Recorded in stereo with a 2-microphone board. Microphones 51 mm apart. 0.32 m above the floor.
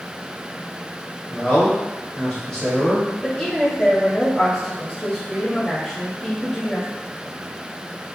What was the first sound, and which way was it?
A man speaking, 10° left (ahead or behind).